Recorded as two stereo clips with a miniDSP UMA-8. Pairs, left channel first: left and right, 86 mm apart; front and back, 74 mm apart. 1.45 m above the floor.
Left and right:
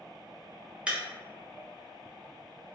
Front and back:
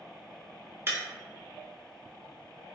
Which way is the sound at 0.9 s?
160° right.